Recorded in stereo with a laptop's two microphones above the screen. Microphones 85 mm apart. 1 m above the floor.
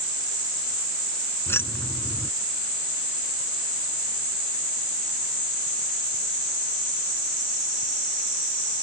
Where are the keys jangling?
30° left (ahead or behind).